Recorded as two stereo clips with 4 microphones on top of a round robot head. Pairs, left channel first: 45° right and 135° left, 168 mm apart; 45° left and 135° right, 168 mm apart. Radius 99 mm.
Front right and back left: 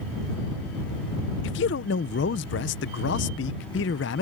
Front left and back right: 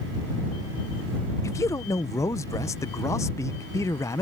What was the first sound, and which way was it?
A man speaking, 30° right.